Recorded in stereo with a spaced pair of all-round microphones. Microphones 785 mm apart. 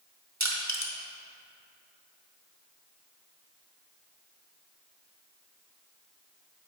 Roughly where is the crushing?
Right.